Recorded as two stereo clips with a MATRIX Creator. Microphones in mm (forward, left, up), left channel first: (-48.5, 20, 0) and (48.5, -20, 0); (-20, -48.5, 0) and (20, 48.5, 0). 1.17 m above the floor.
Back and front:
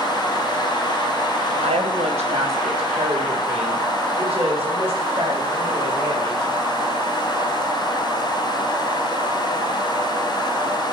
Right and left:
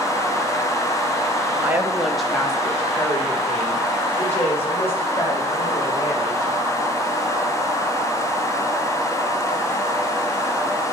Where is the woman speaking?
5° right, 1.2 m; by 6.5 s 45° right, 7 m.